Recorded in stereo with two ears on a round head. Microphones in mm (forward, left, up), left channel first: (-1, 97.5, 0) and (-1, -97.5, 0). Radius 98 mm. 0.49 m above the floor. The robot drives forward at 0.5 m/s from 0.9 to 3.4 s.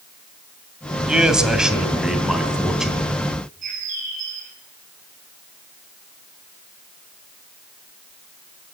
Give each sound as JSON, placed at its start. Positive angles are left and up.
{"t": 1.1, "sound": "a man speaking", "side_deg": -5, "distance_m": 2.5}
{"t": 3.6, "sound": "a bird", "side_deg": -40, "distance_m": 4.5}